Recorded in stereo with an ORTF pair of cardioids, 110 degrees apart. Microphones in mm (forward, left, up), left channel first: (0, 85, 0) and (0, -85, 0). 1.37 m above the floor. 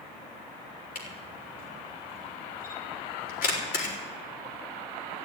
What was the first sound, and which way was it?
A camera shutter, 60° left.